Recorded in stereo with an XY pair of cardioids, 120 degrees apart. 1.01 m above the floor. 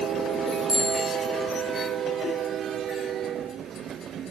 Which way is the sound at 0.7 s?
15° left.